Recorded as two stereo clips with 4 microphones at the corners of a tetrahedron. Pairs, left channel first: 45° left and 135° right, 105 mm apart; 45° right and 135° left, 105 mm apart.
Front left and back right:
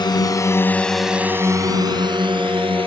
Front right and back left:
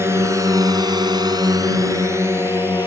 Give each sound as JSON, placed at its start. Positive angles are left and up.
{"t": 0.0, "sound": "a drone", "azimuth_deg": 75}